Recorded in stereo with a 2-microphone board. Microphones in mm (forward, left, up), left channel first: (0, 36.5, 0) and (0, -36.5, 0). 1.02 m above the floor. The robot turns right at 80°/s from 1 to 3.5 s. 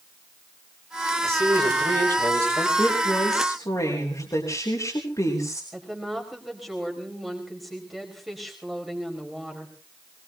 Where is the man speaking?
140° right, 4.5 m; by 2.7 s 25° right, 4.5 m.